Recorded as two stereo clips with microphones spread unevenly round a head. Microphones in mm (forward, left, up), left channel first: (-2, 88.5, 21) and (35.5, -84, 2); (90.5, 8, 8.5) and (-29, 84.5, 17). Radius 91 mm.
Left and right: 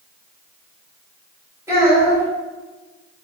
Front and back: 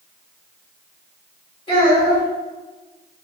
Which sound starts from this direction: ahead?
A child speaking, at 1.7 s.